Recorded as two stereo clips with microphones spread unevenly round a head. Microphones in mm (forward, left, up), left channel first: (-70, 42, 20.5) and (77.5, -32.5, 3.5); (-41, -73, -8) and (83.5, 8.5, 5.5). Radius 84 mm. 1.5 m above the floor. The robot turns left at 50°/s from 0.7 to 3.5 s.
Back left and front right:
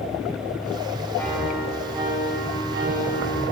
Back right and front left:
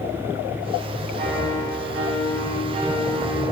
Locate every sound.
1.1 s a piano: 80° left, 3 m; by 3.5 s 40° right, 3 m